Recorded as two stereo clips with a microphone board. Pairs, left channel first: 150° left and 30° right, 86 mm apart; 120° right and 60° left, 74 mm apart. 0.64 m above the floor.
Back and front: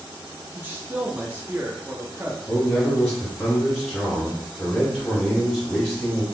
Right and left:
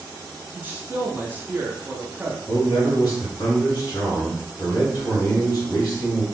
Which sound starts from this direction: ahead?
A man speaking, at 0.6 s.